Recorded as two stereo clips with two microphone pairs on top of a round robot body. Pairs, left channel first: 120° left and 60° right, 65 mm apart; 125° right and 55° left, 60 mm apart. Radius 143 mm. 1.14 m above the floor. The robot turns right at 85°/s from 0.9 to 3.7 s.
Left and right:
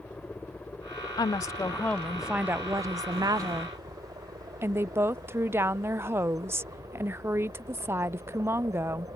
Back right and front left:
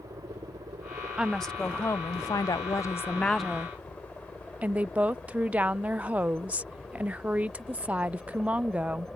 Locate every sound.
0.0 s a helicopter: 50° left; by 9.2 s 40° right
1.2 s a woman speaking: 130° left; by 9.1 s 15° right